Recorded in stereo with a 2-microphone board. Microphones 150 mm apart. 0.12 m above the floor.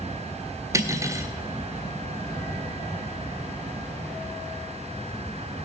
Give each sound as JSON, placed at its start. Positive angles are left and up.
{"t": 0.7, "sound": "cutlery clinking", "side_deg": -20, "distance_m": 1.3}